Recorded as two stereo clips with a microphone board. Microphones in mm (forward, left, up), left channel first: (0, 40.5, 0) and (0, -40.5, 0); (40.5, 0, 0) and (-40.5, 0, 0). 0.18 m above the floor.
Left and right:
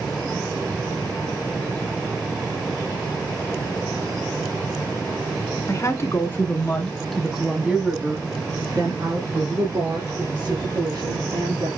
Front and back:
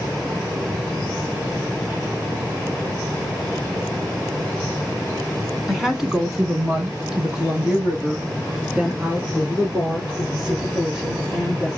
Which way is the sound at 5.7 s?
95° left.